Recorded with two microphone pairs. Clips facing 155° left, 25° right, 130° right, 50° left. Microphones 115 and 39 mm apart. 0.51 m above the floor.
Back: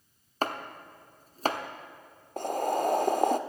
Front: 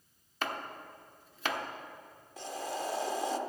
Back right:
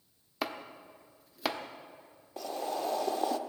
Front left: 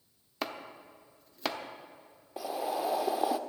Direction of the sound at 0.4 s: 155° left.